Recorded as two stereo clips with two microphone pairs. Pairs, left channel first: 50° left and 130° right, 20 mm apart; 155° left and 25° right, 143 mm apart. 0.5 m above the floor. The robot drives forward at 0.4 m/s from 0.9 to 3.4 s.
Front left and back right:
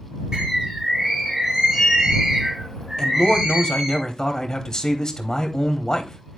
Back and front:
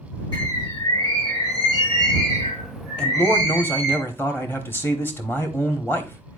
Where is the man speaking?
80° left, 1.2 m; by 6.4 s 95° left, 1.2 m.